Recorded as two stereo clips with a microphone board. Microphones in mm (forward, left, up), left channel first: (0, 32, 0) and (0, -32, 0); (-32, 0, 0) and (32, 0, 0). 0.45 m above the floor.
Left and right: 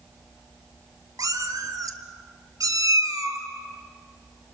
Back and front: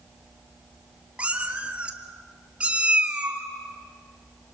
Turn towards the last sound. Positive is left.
turn(degrees=-70)